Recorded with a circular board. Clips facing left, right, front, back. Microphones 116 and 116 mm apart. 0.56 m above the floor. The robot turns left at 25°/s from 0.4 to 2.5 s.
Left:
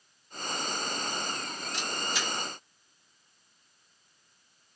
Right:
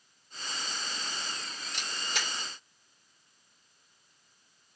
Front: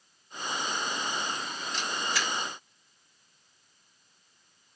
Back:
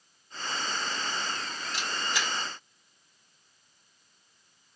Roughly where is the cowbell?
No cowbell in this recording.